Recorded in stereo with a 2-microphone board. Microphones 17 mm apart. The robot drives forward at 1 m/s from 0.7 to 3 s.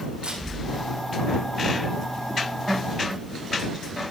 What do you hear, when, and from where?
0.2 s a camera shutter: 75° right (ahead or behind), 8.5 m